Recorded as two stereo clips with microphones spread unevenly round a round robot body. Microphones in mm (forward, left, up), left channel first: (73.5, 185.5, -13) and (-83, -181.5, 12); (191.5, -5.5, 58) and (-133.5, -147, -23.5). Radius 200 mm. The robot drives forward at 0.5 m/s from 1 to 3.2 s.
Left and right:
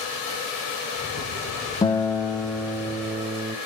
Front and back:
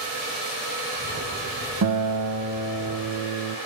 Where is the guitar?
145° left, 0.6 m; by 3.6 s 165° left, 1.3 m.